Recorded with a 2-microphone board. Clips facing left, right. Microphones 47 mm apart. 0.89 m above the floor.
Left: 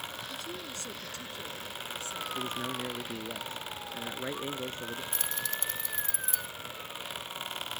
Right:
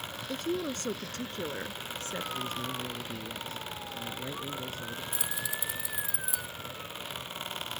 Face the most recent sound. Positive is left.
turn(degrees=-10)  # may be behind; listen again after turning